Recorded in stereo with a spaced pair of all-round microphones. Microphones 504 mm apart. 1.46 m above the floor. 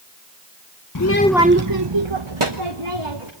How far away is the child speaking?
About 0.9 m.